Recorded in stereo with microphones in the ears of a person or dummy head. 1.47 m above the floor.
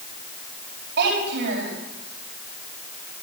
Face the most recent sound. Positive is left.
turn(degrees=-55)  # may be behind; listen again after turning